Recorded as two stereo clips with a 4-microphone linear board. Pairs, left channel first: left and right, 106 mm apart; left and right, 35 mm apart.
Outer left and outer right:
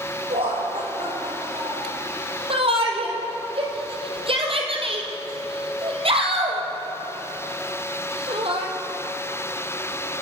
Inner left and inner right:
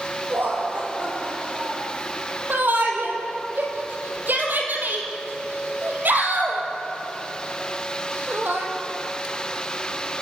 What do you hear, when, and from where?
0.3 s laughter: 65° right (ahead or behind), 8 m; by 2.0 s 60° right (ahead or behind), 6 m
2.5 s a shout: 60° right (ahead or behind), 4 m